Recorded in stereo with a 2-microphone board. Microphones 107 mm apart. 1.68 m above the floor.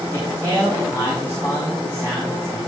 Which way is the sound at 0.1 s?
25° right (ahead or behind).